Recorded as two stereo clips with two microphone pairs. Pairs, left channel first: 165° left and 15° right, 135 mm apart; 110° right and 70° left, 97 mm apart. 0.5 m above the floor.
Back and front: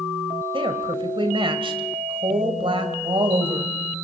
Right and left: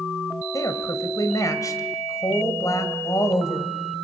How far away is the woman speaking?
About 2.5 m.